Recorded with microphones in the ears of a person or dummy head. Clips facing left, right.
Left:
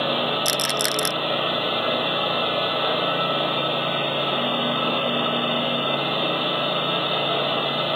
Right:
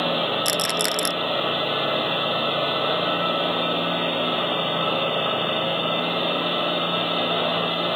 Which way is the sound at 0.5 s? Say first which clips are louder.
Even; 5° right (ahead or behind).